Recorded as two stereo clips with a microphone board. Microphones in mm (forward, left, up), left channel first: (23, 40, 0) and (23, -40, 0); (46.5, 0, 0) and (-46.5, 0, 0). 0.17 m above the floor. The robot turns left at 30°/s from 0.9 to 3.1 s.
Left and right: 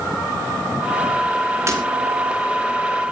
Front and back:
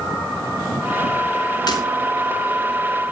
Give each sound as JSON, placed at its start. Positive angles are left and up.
{"t": 1.7, "sound": "breaking glass", "azimuth_deg": -40, "distance_m": 5.5}